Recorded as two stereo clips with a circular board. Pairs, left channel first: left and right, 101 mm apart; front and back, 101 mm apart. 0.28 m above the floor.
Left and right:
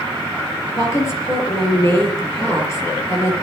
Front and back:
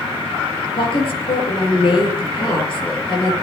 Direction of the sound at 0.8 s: 30° left.